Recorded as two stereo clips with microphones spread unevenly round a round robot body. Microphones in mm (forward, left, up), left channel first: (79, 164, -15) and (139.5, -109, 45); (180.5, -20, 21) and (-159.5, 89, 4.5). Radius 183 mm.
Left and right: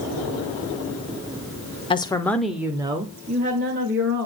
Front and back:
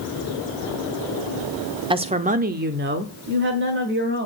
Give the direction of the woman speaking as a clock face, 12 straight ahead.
8 o'clock.